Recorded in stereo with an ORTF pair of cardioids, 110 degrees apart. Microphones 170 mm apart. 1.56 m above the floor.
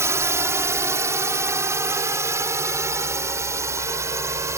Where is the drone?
15° right.